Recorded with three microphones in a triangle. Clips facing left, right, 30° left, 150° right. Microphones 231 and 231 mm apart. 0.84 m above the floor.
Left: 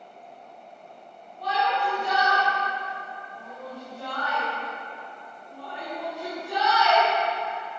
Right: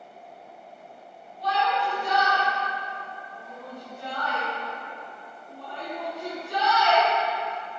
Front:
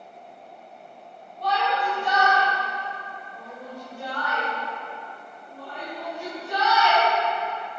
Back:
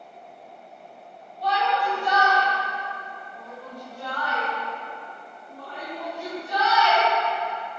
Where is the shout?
65° left, 4 m; by 7.1 s 75° left, 7.5 m.